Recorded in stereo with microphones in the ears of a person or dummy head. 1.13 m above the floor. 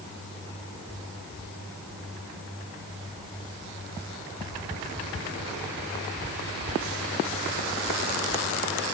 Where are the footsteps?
No footsteps in this recording.